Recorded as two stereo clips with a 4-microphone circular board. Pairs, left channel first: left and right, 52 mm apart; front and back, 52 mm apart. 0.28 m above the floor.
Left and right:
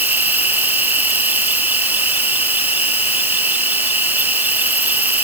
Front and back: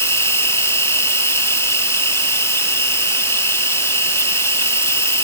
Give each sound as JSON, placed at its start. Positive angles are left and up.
{"t": 0.0, "sound": "an insect", "azimuth_deg": -35}